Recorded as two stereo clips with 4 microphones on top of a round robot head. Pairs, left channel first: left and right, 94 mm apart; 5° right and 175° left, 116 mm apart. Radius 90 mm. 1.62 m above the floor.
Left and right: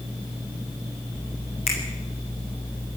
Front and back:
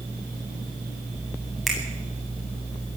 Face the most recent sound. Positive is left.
turn(degrees=90)